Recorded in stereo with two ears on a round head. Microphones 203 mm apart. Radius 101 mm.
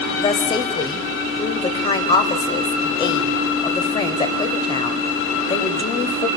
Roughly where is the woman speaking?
Left.